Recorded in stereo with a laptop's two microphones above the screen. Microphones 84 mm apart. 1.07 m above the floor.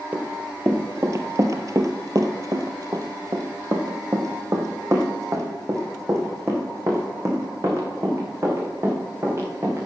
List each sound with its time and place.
0.1 s running footsteps: 25° right (ahead or behind), 1.4 m; by 9.9 s 35° right (ahead or behind), 5.5 m